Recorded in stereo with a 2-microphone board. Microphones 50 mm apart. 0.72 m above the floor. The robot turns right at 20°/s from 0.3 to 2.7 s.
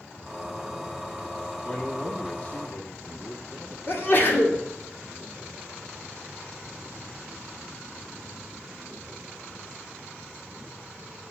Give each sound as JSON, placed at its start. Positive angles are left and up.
{"t": 1.6, "sound": "a man speaking", "side_deg": 15, "distance_m": 1.0}
{"t": 3.9, "sound": "a sneeze", "side_deg": 45, "distance_m": 2.5}